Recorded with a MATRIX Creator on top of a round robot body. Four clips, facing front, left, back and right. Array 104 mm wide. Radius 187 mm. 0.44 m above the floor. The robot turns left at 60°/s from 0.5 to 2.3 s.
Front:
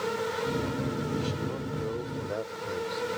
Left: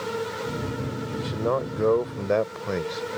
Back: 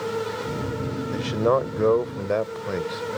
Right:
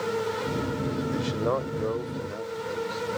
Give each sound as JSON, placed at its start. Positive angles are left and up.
{"t": 1.1, "sound": "a man speaking", "azimuth_deg": -165}